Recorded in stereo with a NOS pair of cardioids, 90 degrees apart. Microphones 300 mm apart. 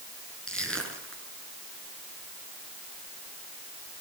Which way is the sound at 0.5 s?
5° left.